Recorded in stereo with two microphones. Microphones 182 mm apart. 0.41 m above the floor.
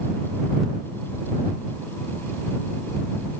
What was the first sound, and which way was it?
Only background noise.